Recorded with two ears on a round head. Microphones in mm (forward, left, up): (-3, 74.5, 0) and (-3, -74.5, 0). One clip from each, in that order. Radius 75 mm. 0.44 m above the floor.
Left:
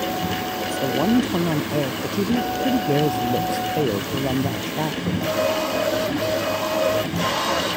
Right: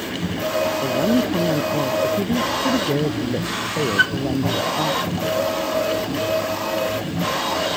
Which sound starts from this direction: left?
A woman speaking, at 0.7 s.